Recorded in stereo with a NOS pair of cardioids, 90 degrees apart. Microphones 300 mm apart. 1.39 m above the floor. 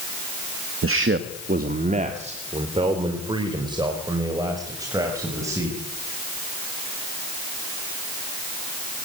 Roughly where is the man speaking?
Ahead right.